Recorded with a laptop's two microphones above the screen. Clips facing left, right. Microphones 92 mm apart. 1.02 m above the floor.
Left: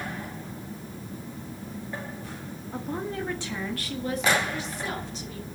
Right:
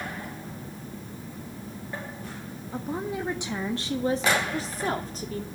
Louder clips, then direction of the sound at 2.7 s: Right 1 dB; centre (ahead or behind).